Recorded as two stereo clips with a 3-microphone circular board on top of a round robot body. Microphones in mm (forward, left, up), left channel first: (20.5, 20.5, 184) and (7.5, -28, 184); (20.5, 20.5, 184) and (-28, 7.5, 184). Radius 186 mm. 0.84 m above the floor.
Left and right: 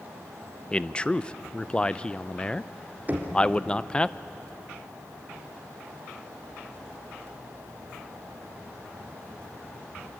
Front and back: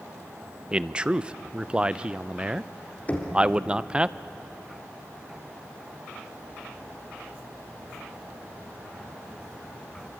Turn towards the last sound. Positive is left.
turn(degrees=-45)